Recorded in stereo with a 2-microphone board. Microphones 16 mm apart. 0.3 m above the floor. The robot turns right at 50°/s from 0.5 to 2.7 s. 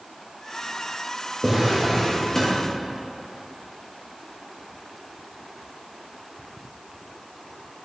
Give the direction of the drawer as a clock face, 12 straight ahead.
1 o'clock.